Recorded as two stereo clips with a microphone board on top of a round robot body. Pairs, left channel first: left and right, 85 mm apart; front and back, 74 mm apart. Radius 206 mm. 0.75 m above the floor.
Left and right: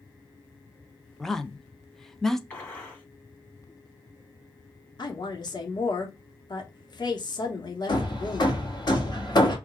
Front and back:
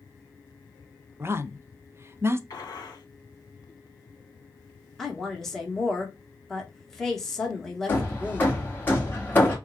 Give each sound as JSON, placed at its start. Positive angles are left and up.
{"t": 1.2, "sound": "a woman speaking", "azimuth_deg": 170, "distance_m": 0.7}
{"t": 2.5, "sound": "a gunshot", "azimuth_deg": 25, "distance_m": 1.8}
{"t": 5.0, "sound": "a woman speaking", "azimuth_deg": 85, "distance_m": 1.3}
{"t": 7.9, "sound": "hammering", "azimuth_deg": 60, "distance_m": 1.5}